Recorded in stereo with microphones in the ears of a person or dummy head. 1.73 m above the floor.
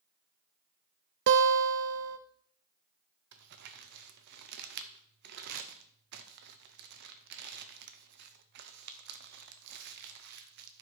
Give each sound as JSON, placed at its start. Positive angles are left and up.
{"t": 1.3, "sound": "a guitar", "side_deg": -60, "distance_m": 0.7}
{"t": 3.3, "sound": "crumpling", "side_deg": -55, "distance_m": 0.9}